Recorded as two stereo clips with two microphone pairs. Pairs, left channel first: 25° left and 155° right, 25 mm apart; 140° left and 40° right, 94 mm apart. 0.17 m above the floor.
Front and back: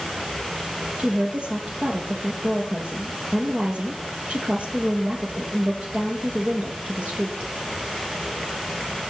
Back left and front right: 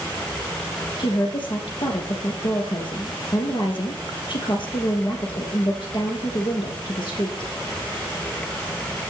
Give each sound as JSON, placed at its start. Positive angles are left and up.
{"t": 1.0, "sound": "a woman speaking", "azimuth_deg": 170, "distance_m": 3.5}